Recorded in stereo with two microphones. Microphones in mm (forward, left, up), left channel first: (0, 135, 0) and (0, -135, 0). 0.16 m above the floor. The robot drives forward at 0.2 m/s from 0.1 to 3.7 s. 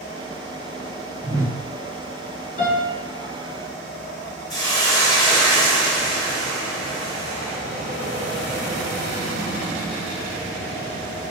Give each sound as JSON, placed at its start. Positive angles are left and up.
{"t": 1.2, "sound": "a whoosh", "side_deg": -10, "distance_m": 0.6}
{"t": 2.6, "sound": "a piano", "side_deg": 35, "distance_m": 1.7}
{"t": 4.5, "sound": "a hiss", "side_deg": 15, "distance_m": 1.7}